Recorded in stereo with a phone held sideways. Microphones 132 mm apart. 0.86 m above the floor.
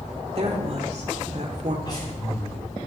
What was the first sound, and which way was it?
A woman speaking, 50° right (ahead or behind).